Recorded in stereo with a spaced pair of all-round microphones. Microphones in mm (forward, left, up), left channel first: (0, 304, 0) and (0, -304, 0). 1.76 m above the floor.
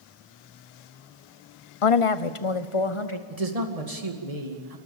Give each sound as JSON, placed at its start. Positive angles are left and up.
{"t": 1.8, "sound": "a woman speaking", "side_deg": 60, "distance_m": 0.7}
{"t": 3.3, "sound": "a man speaking", "side_deg": -75, "distance_m": 2.5}